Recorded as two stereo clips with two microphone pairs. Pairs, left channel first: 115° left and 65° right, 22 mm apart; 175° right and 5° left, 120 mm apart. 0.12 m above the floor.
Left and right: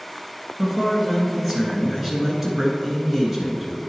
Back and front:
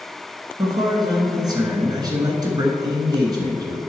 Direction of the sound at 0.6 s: 5° right.